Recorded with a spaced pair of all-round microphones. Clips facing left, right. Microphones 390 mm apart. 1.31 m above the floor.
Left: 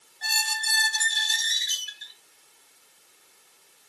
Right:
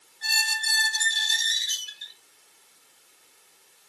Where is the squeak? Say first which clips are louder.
Left 2 dB; 70° left (ahead or behind), 1.0 m.